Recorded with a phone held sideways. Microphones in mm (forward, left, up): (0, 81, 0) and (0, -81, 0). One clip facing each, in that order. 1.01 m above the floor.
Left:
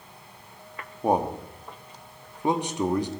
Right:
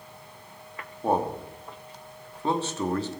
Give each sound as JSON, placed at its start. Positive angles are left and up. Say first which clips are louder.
{"t": 1.0, "sound": "a man speaking", "louder": "left 2 dB", "side_deg": 15, "distance_m": 1.7}